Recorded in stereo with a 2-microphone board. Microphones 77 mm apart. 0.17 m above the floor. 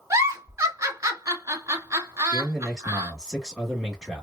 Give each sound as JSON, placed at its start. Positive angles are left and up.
{"t": 0.1, "sound": "a giggle", "side_deg": -45, "distance_m": 1.2}
{"t": 2.3, "sound": "a man speaking", "side_deg": -10, "distance_m": 1.0}